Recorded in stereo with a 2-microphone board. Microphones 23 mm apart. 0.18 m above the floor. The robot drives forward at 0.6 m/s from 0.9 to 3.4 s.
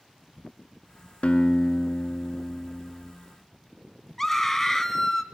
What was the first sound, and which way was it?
A guitar, 55° left (ahead or behind).